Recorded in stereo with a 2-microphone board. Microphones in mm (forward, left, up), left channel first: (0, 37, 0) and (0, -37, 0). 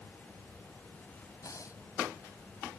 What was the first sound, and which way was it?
Breathing, 50° left (ahead or behind).